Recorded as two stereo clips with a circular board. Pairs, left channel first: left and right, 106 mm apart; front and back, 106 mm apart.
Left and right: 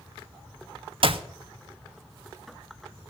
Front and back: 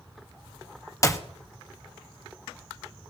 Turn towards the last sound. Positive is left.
turn(degrees=-60)